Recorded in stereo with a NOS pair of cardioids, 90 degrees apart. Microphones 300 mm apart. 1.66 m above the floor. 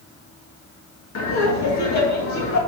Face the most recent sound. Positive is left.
turn(degrees=70)